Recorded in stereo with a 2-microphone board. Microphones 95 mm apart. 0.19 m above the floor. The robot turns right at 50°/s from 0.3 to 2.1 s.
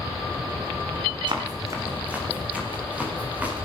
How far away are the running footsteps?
About 4 m.